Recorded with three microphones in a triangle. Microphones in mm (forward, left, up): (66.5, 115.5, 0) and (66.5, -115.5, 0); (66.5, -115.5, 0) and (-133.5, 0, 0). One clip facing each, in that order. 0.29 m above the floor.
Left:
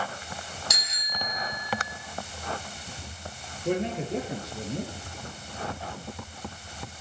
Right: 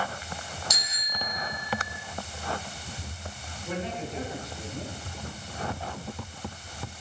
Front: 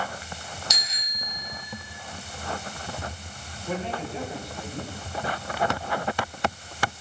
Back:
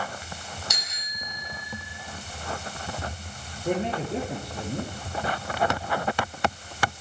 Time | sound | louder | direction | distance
0.7 | a bicycle bell | even, front 1 dB | 115° left | 4 m
3.6 | a man speaking | left 6 dB, back 4 dB | 120° left | 6.5 m